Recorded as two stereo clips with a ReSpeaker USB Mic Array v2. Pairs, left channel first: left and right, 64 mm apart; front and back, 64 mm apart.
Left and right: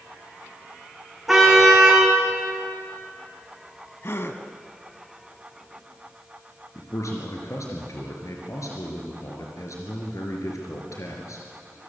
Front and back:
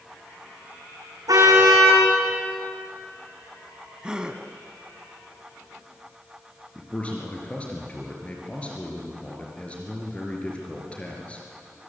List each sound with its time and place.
1.3 s a car horn: 175° right, 6 m
4.0 s a gasp: 110° left, 1.3 m
6.8 s a man speaking: 70° left, 4 m